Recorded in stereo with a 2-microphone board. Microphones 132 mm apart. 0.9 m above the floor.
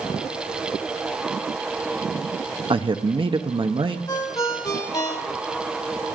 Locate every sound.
2.7 s a man speaking: 40° right (ahead or behind), 0.8 m
4.1 s a ringtone: 25° left (ahead or behind), 1.3 m